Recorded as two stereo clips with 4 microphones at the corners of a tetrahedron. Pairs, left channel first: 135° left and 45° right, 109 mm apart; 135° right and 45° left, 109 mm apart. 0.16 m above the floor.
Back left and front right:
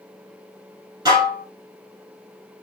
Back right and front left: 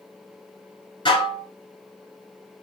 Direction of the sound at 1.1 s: 100° right.